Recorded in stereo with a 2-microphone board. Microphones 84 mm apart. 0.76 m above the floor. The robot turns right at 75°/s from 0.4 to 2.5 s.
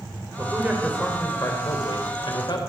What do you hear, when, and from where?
0.4 s a man speaking: 40° right, 3 m; by 2.7 s 120° left, 3 m